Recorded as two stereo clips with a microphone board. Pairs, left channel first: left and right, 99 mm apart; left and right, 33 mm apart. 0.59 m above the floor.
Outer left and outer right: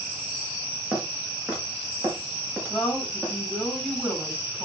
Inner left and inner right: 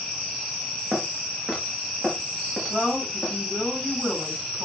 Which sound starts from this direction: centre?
A woman speaking, at 2.7 s.